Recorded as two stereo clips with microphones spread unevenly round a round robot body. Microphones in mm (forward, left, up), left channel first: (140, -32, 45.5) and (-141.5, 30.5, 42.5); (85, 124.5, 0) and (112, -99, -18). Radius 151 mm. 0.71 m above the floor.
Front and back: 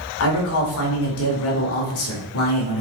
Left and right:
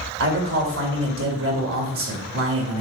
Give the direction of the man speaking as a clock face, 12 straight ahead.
2 o'clock.